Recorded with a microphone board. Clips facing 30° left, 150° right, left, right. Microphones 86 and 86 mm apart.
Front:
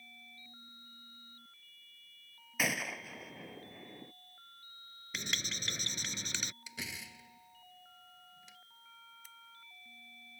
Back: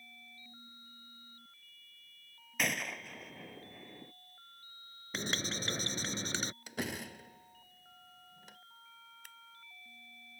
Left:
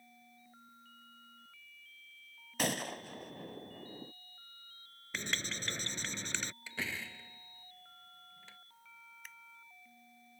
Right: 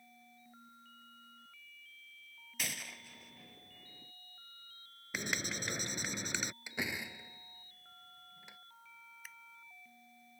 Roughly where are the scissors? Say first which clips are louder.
Back 1 dB, even; behind.